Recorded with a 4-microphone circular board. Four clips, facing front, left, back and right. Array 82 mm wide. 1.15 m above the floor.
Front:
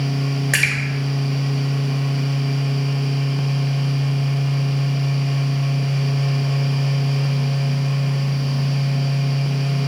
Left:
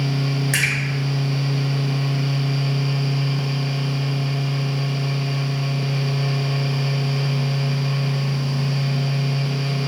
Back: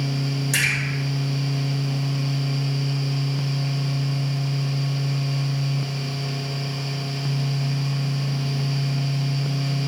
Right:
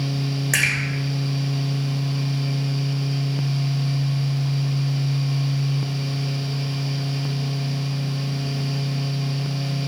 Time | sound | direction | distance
0.5 | a splash | 15° right | 1.5 m